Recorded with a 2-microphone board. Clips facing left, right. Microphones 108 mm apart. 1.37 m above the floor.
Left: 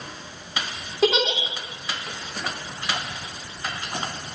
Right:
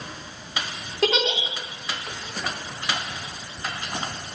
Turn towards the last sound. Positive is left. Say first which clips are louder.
# left 2 dB
turn(degrees=5)  # may be behind; listen again after turning